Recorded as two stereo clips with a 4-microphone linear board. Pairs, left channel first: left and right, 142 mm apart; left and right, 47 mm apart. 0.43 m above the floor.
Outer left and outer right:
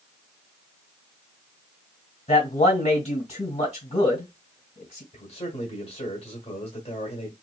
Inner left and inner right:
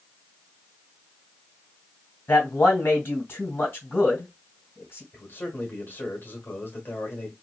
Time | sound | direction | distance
2.3 | a man speaking | 50° left (ahead or behind) | 2 m
5.1 | a man speaking | 45° left (ahead or behind) | 1.3 m